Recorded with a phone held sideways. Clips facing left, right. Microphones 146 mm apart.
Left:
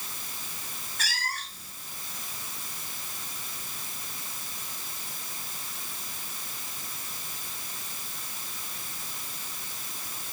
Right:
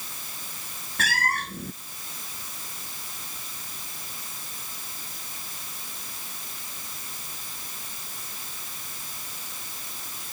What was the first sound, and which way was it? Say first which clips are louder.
A cat meowing: right 9 dB; 60° right (ahead or behind).